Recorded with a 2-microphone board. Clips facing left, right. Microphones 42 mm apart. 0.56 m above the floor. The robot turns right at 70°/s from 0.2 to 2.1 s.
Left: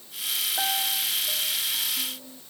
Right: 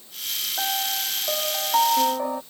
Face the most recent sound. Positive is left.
turn(degrees=-75)